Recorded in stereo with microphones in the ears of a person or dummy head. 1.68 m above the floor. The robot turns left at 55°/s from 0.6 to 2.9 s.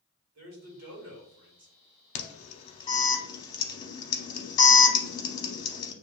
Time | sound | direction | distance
0.3 | a man speaking | 80° right | 1.7 m
2.1 | an alarm | 35° left (ahead or behind) | 0.7 m